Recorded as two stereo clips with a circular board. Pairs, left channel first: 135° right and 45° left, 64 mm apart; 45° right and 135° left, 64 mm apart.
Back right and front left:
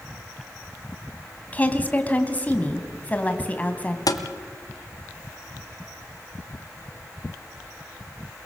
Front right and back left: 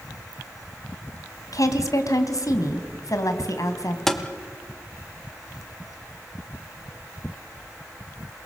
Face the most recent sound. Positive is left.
turn(degrees=-130)